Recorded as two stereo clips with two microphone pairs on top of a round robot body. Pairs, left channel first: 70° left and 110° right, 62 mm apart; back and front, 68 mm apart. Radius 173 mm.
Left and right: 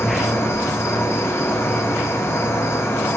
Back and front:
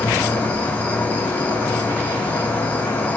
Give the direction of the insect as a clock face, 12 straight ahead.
8 o'clock.